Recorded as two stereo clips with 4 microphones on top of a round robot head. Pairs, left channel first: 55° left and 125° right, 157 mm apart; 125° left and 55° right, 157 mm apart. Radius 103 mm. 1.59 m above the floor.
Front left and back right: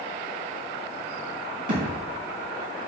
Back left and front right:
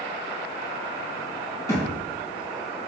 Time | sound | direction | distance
1.7 | a thud | 165° right | 4.5 m